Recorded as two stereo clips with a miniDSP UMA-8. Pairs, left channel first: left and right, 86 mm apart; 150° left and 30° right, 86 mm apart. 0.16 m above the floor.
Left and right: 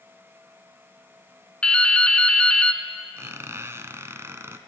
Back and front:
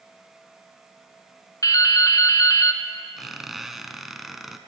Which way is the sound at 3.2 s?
115° right.